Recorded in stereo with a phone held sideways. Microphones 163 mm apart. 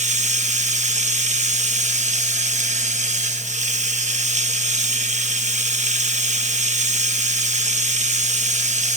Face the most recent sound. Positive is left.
turn(degrees=-45)  # may be behind; listen again after turning